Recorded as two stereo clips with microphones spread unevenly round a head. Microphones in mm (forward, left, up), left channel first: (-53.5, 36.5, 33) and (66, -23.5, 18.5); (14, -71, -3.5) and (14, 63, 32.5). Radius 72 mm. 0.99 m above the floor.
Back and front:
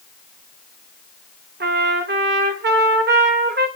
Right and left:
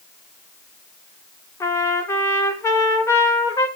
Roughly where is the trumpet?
Ahead.